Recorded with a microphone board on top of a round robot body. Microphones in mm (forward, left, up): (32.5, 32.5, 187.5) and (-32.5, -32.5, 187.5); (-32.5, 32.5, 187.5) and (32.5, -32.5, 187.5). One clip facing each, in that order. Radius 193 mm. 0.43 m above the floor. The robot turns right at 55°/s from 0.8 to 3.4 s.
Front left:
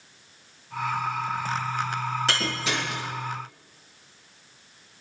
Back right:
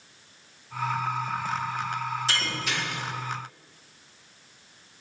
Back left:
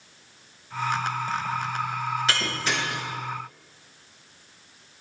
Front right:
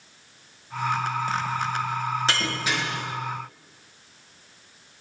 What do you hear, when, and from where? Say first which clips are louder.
2.3 s breaking glass: front left 3 dB, front right 1 dB; 15° left, 5 m; by 3.0 s 55° left, 5 m